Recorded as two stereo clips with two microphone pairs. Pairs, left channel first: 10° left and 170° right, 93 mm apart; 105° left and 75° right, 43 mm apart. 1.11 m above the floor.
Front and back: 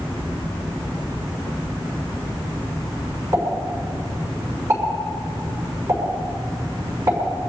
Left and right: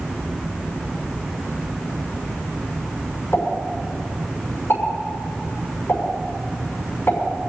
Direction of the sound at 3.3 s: 135° left.